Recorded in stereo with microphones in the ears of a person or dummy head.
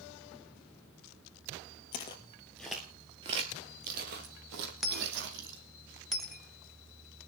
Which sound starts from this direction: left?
Footsteps, at 1.9 s.